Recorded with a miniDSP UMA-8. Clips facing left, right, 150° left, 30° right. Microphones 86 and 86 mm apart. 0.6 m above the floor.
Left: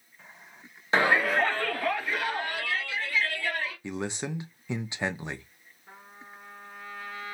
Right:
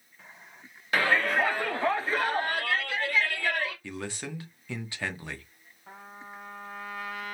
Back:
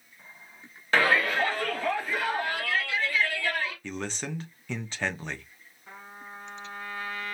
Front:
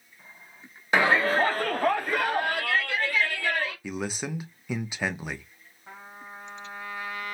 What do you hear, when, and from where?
0.9 s a shout: 35° left, 0.8 m; by 3.7 s 65° right, 2.5 m
3.8 s a man speaking: 40° left, 0.6 m
5.9 s a trumpet: 105° right, 1.6 m